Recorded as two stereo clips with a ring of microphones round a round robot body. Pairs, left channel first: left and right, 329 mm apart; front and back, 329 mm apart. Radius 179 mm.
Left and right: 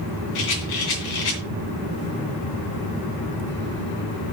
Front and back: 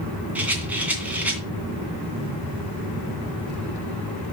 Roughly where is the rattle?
Left.